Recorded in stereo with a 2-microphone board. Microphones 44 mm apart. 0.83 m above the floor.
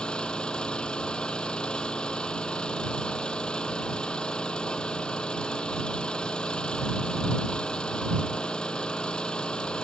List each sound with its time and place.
0.0 s an engine running: 20° left (ahead or behind)